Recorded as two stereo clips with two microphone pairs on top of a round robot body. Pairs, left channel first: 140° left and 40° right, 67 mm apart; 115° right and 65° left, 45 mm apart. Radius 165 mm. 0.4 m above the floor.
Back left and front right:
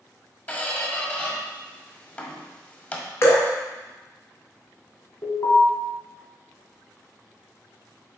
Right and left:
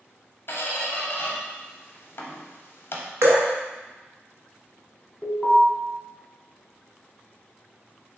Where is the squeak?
155° right, 0.7 m.